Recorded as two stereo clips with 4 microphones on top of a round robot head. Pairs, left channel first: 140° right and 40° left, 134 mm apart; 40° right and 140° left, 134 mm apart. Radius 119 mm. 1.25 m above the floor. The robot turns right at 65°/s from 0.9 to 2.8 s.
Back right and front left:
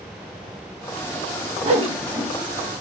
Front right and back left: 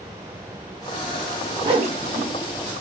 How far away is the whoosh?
About 0.9 m.